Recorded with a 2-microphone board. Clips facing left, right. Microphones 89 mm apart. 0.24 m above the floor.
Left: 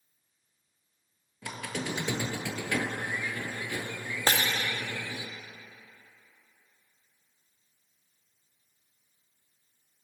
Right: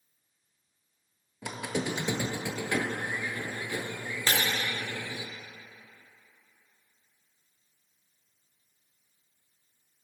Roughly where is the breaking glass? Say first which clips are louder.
Left 2 dB; left.